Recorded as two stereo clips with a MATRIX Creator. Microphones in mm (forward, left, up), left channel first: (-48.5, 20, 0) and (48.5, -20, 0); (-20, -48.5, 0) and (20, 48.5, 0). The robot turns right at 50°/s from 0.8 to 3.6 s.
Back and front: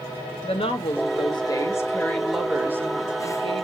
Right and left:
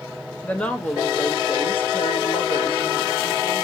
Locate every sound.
0.4 s a woman speaking: 170° left, 0.8 m; by 3.6 s 50° right, 0.8 m